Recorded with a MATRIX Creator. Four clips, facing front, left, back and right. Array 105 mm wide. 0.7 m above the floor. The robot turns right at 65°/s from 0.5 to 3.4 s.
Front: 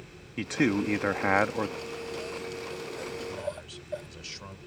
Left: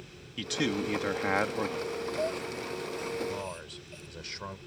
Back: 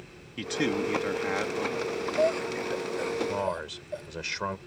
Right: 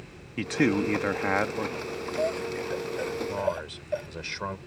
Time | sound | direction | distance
0.4 | a man speaking | 70° right | ?
1.8 | breathing | 165° left | ?
3.3 | a man speaking | 155° right | ?